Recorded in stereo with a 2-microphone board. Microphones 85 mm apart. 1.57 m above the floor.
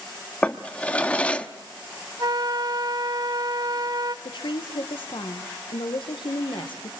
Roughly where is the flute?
Right.